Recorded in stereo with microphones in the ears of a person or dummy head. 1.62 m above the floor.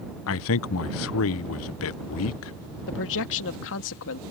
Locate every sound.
0.3 s a man speaking: 75° left (ahead or behind)
2.9 s a man speaking: 70° left (ahead or behind)